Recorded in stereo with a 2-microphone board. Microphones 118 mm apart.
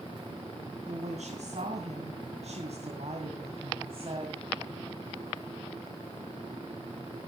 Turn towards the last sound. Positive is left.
turn(degrees=-45)  # may be behind; listen again after turning